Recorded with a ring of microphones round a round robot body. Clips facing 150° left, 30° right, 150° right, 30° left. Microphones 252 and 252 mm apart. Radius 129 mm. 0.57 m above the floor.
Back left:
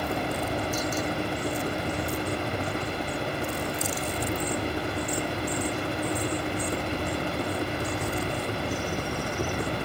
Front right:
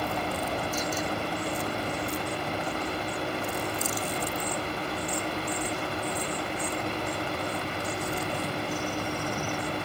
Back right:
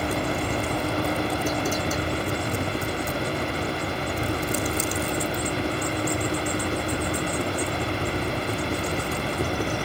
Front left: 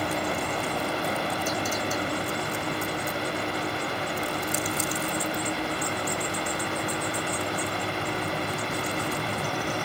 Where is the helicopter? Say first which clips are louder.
Back left 2 dB, back right 3 dB; 150° right; by 9.8 s straight behind.